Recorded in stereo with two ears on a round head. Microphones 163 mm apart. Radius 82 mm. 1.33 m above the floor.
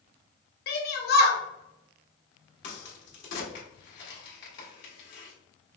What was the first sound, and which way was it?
A shout, 55° left (ahead or behind).